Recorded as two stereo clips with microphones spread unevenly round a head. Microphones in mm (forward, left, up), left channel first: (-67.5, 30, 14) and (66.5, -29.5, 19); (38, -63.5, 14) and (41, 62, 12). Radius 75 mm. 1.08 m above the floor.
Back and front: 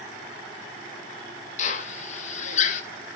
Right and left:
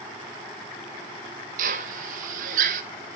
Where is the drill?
115° left, 1.1 m.